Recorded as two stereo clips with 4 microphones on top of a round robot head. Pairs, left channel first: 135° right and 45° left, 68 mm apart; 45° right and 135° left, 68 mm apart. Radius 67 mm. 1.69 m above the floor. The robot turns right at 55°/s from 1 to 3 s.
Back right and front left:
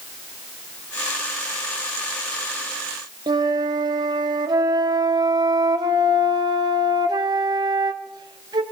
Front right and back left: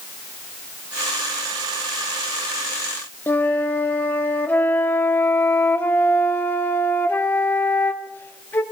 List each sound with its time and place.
3.3 s a flute: 20° left, 0.7 m